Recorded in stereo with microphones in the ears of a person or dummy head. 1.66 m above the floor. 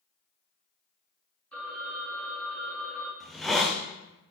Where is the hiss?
5° left (ahead or behind), 0.5 m.